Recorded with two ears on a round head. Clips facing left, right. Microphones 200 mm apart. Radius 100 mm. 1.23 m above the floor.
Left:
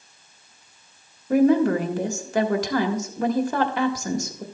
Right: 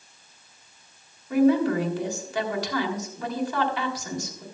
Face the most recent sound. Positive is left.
turn(degrees=40)  # may be behind; listen again after turning